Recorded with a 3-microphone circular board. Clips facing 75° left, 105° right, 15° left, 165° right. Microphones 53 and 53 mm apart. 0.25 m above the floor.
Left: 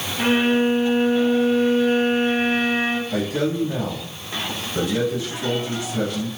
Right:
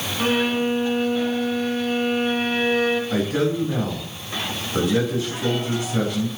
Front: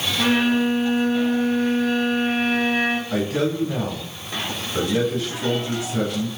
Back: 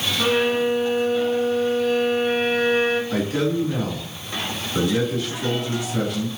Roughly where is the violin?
Ahead.